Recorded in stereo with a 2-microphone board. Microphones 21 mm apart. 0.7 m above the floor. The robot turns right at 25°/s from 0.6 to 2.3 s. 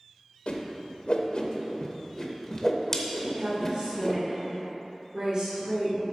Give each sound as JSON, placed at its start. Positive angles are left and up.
{"t": 0.5, "sound": "a whoosh", "side_deg": 65, "distance_m": 0.8}
{"t": 3.2, "sound": "a woman speaking", "side_deg": -45, "distance_m": 1.6}